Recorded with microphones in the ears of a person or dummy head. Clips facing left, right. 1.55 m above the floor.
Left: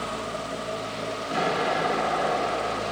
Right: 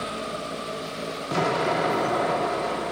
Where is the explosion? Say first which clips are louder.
Right 2 dB; 55° right (ahead or behind), 1.5 m.